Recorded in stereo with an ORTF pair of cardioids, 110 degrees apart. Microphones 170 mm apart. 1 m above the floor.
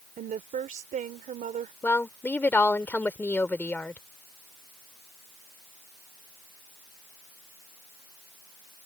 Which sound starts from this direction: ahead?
A woman speaking, at 1.8 s.